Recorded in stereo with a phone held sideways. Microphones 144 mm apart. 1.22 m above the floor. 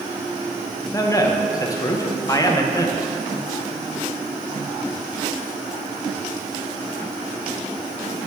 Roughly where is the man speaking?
Left.